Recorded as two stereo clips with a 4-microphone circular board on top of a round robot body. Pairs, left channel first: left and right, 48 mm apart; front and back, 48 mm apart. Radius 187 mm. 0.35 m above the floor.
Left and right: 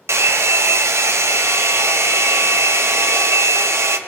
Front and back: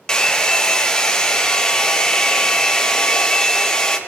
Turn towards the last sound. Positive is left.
turn(degrees=-75)